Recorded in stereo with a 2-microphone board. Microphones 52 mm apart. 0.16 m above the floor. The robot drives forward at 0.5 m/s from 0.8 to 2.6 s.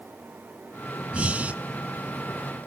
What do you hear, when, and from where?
1.1 s breathing: 25° right (ahead or behind), 0.8 m